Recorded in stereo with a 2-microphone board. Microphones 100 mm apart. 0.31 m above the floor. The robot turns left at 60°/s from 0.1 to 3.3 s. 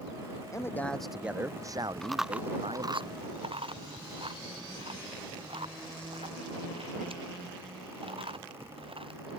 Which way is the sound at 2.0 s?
10° left (ahead or behind).